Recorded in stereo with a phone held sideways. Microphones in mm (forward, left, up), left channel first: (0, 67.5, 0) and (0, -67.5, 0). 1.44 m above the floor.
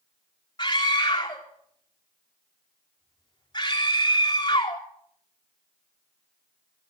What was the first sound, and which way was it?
A scream, 35° left (ahead or behind).